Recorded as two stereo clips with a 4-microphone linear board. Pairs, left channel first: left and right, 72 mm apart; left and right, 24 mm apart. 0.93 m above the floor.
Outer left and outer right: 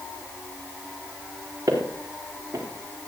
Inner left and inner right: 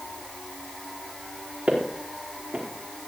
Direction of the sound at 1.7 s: 45° right (ahead or behind).